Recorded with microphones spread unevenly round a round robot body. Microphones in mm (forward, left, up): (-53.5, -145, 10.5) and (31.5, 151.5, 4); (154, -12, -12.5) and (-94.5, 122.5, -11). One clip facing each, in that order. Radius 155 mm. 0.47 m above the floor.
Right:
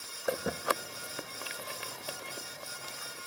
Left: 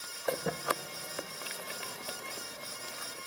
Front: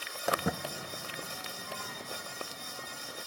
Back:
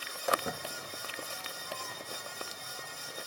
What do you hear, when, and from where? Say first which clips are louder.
0.3 s footsteps: right 1 dB, front 2 dB; 25° right, 1.1 m; by 3.2 s 10° right, 3 m